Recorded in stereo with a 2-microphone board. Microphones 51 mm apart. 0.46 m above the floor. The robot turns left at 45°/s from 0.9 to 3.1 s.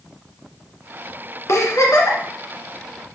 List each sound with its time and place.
1.5 s a giggle: 110° left, 1.8 m; by 2.2 s 80° left, 1.8 m